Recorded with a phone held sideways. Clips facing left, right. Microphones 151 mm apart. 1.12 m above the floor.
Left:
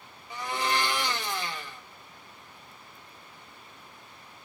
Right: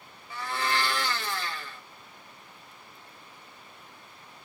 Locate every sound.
0.3 s a blender: 20° left (ahead or behind), 0.9 m